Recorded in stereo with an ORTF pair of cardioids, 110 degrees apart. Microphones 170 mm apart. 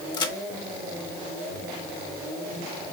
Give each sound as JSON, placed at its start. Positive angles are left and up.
{"t": 0.1, "sound": "a crack", "azimuth_deg": 25, "distance_m": 1.3}